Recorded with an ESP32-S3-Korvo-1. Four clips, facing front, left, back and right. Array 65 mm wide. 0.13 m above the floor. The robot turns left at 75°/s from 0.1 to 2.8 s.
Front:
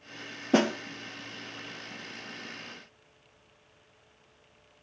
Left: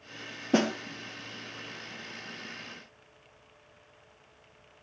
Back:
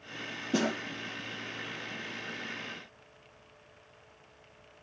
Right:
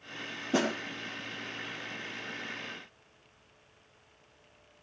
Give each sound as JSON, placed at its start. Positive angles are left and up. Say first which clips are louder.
{"t": 0.5, "sound": "a snare drum", "louder": "left 3 dB, front 5 dB", "azimuth_deg": 25, "distance_m": 2.5}